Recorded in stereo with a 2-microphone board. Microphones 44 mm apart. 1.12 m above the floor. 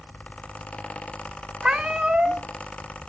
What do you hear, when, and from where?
1.6 s a cat meowing: 20° right (ahead or behind), 0.9 m